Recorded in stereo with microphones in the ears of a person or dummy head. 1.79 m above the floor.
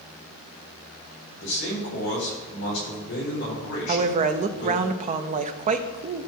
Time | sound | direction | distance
1.4 | a man speaking | 55° left (ahead or behind) | 4.5 m
3.9 | a woman speaking | 35° right (ahead or behind) | 0.7 m